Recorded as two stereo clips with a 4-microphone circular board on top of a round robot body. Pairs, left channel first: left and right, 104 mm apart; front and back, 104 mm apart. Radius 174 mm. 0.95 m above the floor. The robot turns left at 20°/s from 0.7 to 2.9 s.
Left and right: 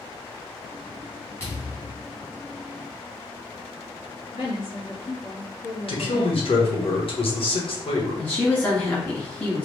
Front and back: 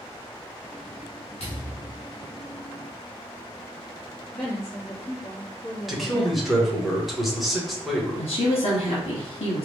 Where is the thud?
25° left, 0.6 m; by 2.0 s 10° left, 0.6 m.